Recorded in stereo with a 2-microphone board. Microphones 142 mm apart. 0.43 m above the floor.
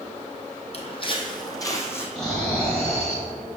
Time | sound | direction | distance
0.7 | footsteps | 45° left (ahead or behind) | 1.1 m
2.1 | snoring | 5° left (ahead or behind) | 2.5 m